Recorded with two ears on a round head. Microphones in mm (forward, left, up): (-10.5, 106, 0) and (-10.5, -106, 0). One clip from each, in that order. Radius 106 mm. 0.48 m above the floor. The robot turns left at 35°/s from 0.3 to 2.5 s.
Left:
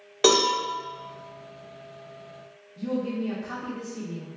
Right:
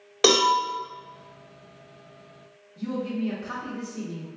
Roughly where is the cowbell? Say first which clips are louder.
Right 1 dB; centre.